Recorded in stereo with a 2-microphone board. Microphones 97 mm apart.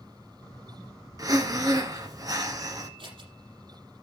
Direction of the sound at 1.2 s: 40° right (ahead or behind).